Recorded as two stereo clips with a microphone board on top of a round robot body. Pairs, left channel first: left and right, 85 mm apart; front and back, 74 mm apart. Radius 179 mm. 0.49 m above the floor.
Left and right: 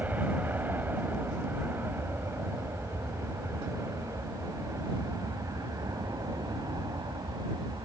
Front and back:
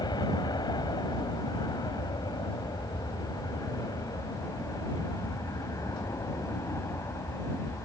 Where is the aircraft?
20° right; by 7.8 s 50° right.